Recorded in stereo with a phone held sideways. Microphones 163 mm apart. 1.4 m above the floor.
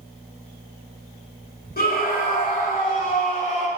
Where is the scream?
70° left (ahead or behind), 3 m; by 3.7 s 50° left (ahead or behind), 3.5 m.